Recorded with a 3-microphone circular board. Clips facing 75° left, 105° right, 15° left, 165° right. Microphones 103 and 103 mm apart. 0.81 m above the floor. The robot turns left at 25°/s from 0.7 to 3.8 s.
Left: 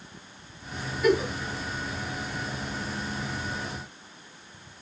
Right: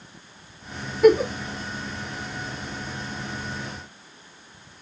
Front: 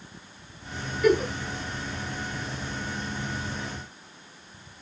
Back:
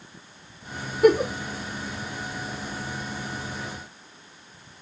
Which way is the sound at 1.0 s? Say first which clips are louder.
Right 8 dB, back 4 dB; 135° right.